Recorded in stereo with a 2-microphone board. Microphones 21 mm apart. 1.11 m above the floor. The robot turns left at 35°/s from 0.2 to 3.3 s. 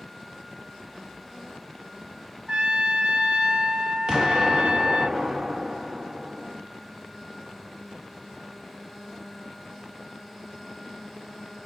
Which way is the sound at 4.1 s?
35° right (ahead or behind).